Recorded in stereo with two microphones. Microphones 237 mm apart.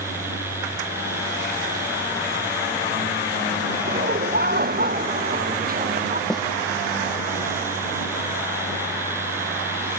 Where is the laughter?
45° right (ahead or behind); by 6.2 s 35° right (ahead or behind).